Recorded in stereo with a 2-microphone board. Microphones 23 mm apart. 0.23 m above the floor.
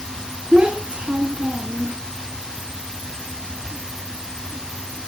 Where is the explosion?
No explosion in this recording.